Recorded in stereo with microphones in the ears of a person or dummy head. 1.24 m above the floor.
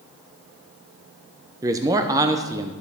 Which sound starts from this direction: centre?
A man speaking, at 1.6 s.